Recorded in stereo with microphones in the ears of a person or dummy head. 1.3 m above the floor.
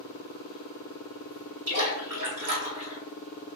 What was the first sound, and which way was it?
A splash, 80° right.